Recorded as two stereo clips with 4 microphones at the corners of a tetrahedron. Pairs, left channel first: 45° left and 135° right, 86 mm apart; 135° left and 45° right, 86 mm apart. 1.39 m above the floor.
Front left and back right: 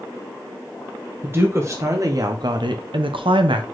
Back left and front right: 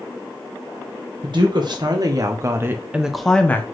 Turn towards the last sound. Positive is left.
turn(degrees=-160)